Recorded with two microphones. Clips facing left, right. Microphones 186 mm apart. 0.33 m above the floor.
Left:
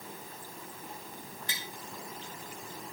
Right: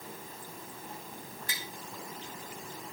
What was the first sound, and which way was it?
Tapping, 25° left (ahead or behind).